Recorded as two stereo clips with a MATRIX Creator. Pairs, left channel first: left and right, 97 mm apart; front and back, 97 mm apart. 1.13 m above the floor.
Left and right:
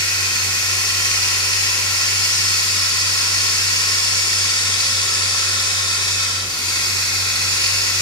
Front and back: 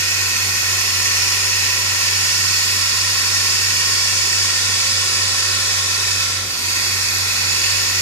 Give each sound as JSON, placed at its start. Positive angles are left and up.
{"t": 0.0, "sound": "running water", "azimuth_deg": 55, "distance_m": 1.4}